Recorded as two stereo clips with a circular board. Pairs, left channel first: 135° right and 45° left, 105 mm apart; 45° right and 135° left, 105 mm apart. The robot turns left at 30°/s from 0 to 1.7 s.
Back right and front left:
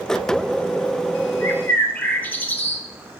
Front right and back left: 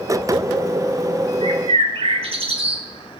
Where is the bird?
160° left, 0.6 m; by 2.8 s 155° left, 0.6 m.